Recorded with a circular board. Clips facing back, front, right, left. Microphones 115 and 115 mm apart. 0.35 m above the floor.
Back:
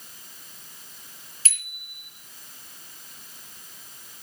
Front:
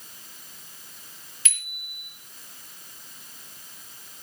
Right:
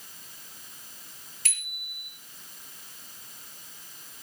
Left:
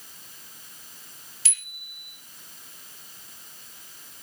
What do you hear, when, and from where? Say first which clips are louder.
1.4 s a bicycle bell: front 2 dB, right 7 dB; 130° right, 5.5 m